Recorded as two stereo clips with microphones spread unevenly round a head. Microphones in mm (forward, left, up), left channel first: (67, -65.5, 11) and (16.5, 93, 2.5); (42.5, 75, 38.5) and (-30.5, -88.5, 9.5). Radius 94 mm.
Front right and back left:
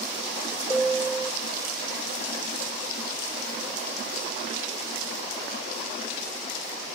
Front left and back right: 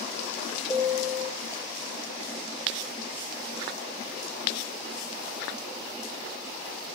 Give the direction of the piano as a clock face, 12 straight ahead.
12 o'clock.